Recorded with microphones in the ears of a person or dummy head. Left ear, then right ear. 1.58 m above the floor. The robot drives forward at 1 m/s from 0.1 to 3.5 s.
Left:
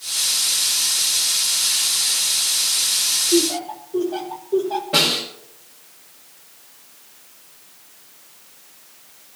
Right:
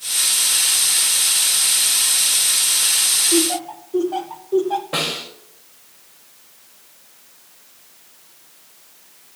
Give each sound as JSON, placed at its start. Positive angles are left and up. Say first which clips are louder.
{"t": 3.3, "sound": "laughter", "louder": "even", "side_deg": -70, "distance_m": 2.5}
{"t": 4.9, "sound": "a snare drum", "louder": "left 5 dB", "side_deg": -40, "distance_m": 5.5}